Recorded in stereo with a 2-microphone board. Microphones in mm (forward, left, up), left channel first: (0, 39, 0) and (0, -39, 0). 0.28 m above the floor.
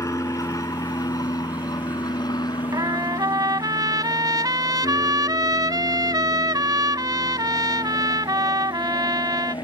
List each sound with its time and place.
0.0 s an aircraft: 40° left (ahead or behind); by 9.6 s 65° left (ahead or behind)
2.7 s a trumpet: 60° right (ahead or behind)